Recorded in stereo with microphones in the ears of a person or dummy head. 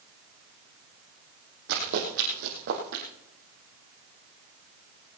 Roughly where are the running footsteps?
Right.